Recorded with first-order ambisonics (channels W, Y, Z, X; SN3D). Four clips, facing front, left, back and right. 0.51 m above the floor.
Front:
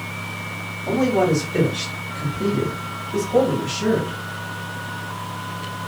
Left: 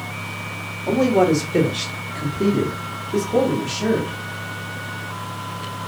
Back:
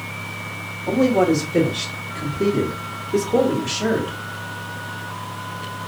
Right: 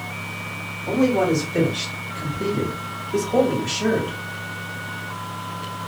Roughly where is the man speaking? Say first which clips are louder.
Left 3 dB, back 2 dB; left.